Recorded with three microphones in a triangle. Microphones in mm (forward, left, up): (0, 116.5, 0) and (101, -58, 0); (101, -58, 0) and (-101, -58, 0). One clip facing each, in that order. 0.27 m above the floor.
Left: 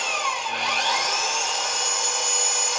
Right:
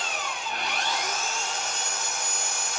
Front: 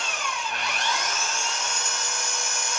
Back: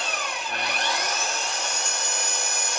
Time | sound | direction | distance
0.0 | an engine running | 125° left | 3 m